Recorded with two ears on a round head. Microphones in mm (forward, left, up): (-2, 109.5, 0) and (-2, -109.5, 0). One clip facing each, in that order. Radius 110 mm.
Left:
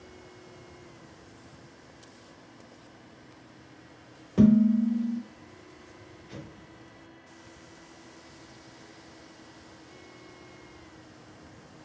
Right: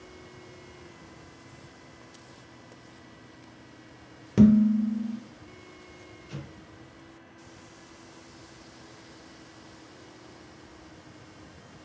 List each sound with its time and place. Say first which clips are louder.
4.4 s dishes clattering: right 1 dB; 35° right (ahead or behind), 0.9 m
6.3 s an explosion: right 1 dB; 20° right (ahead or behind), 1.7 m